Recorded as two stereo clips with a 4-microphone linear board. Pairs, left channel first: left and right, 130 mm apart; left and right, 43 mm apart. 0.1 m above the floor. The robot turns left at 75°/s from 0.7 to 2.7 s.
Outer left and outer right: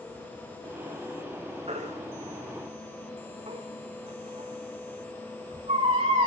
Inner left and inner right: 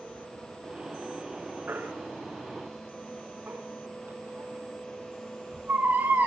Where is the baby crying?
50° right (ahead or behind), 5 m.